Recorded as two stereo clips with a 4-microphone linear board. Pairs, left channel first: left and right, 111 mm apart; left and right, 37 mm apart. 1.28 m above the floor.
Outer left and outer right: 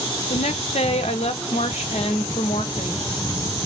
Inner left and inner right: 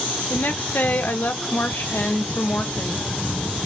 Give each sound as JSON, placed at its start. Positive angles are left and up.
{"t": 0.3, "sound": "a woman speaking", "side_deg": 70, "distance_m": 0.6}